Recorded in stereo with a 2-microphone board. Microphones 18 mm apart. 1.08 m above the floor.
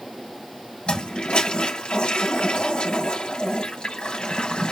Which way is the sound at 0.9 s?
70° left (ahead or behind).